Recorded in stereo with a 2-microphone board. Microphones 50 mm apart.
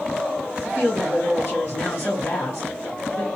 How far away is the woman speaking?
About 2.5 m.